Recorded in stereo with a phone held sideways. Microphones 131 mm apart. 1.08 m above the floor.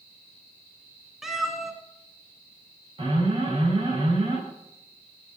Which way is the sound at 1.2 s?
Centre (ahead or behind).